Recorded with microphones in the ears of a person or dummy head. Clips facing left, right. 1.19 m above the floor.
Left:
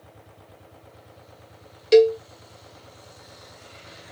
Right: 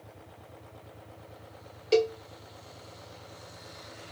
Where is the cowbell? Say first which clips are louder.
Left 10 dB; 25° left (ahead or behind), 0.5 m.